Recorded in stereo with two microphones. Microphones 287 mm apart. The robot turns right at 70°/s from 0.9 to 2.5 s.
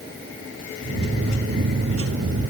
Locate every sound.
Only background noise.